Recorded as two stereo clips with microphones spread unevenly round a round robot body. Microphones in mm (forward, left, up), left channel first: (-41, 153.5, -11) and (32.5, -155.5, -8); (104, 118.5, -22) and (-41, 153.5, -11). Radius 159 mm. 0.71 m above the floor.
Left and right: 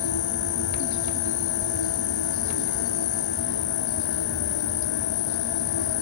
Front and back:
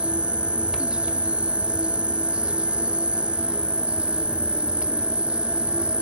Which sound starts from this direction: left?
An insect, at 0.0 s.